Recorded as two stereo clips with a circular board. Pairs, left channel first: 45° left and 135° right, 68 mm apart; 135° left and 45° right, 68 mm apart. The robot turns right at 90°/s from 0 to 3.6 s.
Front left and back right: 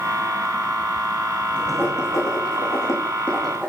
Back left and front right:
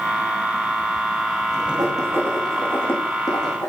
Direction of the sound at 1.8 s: 20° right.